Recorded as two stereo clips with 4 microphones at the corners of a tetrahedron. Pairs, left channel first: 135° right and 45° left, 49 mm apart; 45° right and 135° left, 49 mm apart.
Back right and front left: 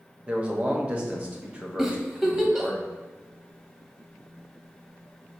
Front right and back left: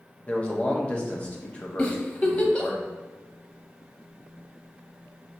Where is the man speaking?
Straight ahead, 0.6 m.